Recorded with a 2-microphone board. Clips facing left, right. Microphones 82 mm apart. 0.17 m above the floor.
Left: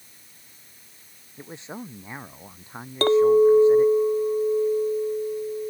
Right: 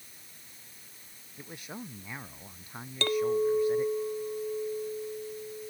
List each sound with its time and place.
1.4 s a man speaking: 25° left (ahead or behind)
3.0 s a clink: 40° left (ahead or behind)